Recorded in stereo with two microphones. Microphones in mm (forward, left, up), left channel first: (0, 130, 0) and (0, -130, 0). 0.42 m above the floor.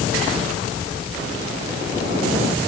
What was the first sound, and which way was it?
Only background noise.